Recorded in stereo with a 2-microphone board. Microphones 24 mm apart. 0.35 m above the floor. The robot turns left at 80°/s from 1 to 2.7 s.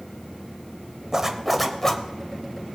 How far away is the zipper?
About 0.9 m.